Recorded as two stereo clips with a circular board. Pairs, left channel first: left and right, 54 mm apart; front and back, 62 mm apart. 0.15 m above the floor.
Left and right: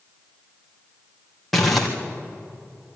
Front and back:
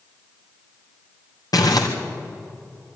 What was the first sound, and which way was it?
Crumpling, 5° left.